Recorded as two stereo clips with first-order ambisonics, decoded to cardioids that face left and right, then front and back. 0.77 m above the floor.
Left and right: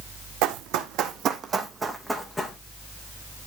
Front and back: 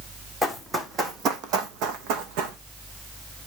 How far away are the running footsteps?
About 1.7 m.